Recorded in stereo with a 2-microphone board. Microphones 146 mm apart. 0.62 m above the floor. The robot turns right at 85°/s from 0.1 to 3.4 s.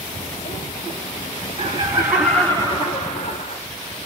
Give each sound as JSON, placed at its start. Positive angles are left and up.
{"t": 1.6, "sound": "laughter", "azimuth_deg": -60, "distance_m": 2.5}